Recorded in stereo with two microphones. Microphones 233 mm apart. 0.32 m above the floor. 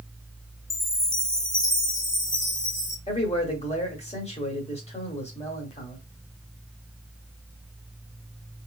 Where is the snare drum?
I don't hear a snare drum.